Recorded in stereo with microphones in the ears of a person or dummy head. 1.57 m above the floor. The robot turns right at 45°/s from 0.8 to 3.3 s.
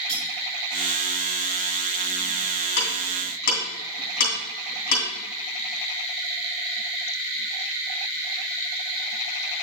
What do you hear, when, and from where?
0.1 s cutlery clinking: 20° right (ahead or behind), 1.8 m
2.8 s ticking: 85° left, 2.5 m; by 5.0 s 60° left (ahead or behind), 2.5 m